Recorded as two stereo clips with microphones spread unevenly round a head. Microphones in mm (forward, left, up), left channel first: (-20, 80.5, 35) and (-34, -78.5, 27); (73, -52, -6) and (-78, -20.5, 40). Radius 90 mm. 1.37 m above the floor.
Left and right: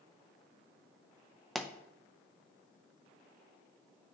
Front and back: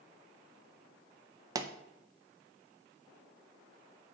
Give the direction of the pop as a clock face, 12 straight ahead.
6 o'clock.